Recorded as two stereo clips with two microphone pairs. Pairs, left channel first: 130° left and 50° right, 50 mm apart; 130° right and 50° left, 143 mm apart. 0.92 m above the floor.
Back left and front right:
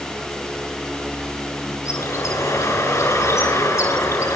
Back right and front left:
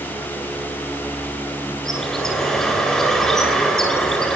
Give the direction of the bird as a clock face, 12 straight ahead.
7 o'clock.